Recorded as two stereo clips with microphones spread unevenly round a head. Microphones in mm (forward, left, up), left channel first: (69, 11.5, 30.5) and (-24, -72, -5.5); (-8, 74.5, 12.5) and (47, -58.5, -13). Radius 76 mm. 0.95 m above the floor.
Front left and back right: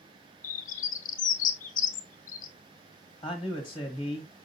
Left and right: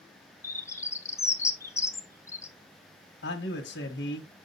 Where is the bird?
35° left, 1.1 m.